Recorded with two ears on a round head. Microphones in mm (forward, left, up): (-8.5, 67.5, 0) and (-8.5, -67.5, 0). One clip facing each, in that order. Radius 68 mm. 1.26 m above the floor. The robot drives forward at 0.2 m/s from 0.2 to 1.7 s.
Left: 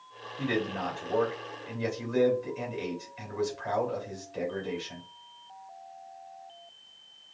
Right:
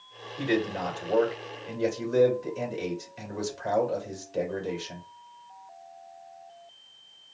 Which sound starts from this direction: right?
A man speaking, at 0.4 s.